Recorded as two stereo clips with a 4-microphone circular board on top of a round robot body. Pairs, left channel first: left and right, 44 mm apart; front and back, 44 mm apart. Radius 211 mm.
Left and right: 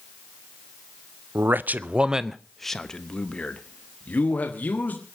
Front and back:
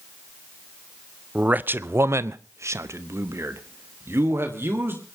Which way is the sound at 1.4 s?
120° right.